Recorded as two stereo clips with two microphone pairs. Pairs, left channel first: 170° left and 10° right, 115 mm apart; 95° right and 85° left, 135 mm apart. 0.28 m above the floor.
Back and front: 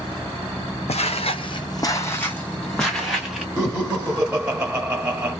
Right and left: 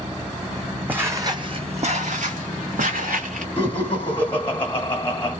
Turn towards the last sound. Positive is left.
turn(degrees=-60)